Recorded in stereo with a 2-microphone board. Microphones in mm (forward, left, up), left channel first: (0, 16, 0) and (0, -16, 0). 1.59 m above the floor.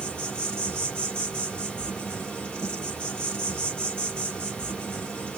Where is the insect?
35° left (ahead or behind), 1.4 m.